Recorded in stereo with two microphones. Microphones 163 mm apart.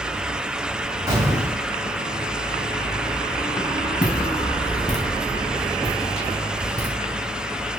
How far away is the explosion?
About 1.5 m.